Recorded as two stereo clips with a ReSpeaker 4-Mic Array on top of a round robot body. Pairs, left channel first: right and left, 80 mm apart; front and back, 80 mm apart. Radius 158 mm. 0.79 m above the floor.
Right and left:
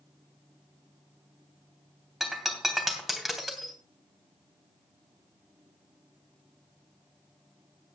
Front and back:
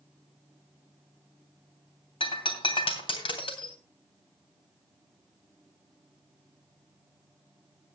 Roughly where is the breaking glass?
Ahead.